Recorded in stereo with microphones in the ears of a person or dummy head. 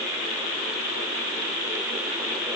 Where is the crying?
No crying in this recording.